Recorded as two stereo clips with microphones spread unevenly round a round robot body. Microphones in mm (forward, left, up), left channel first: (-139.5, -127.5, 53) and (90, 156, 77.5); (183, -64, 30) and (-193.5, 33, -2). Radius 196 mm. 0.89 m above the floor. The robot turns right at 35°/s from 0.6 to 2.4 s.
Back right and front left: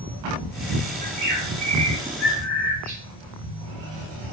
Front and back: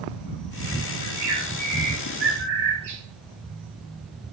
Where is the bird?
75° left, 1.4 m; by 3.0 s 125° left, 1.4 m.